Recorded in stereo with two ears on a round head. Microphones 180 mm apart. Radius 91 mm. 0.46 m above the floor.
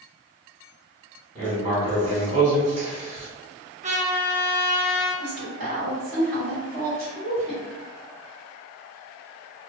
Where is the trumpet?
40° right (ahead or behind), 1.2 m.